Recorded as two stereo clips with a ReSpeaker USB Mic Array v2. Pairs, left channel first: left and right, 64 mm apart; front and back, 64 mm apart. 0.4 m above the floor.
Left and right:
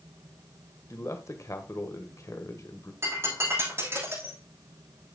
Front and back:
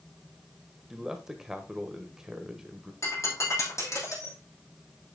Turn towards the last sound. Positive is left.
turn(degrees=-40)